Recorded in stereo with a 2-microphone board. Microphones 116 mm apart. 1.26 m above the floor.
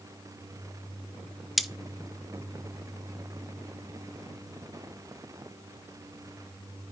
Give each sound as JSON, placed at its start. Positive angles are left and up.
{"t": 1.6, "sound": "cutlery clinking", "side_deg": 0, "distance_m": 0.6}